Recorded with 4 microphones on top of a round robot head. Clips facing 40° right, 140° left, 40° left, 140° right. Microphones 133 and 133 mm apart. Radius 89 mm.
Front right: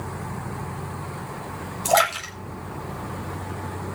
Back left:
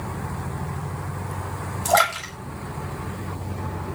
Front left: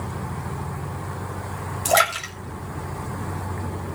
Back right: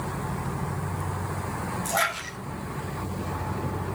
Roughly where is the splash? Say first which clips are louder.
Even, front left 11 dB; ahead left.